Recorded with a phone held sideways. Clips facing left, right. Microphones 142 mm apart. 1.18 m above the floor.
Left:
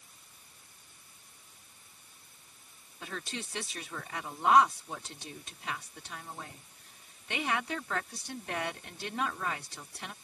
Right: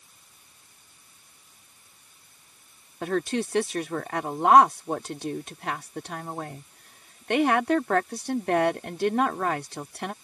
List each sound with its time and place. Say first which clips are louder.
3.0 s a woman speaking: right 15 dB; 65° right (ahead or behind)